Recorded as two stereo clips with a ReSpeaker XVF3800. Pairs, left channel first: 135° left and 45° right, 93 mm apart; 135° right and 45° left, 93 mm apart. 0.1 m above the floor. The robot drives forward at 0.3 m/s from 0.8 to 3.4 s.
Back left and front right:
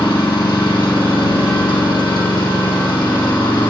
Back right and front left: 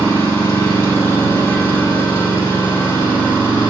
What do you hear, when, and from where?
0.0 s an engine running: 170° left, 3 m